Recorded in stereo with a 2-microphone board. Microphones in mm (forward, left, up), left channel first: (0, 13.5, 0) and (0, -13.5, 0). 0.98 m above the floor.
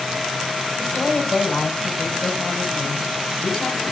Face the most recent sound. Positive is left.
turn(degrees=30)  # may be behind; listen again after turning